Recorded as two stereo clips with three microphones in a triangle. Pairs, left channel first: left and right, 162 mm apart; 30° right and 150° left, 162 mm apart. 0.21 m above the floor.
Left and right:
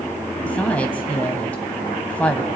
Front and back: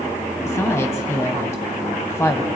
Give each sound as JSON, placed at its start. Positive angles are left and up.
{"t": 0.5, "sound": "a woman speaking", "azimuth_deg": 20, "distance_m": 1.0}